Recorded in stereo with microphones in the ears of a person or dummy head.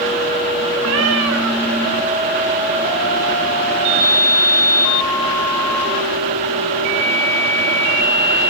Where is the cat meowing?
65° right (ahead or behind), 2 m.